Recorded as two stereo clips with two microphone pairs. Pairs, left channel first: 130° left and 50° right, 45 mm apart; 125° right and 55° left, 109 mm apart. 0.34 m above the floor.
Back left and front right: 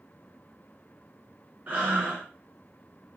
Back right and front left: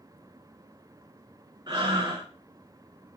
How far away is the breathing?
About 1.7 m.